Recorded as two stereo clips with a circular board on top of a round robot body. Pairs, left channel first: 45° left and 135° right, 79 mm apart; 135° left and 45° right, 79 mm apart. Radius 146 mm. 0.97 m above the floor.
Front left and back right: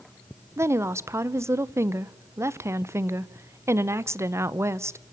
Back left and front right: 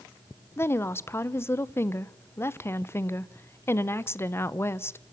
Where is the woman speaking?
175° right, 1.0 m.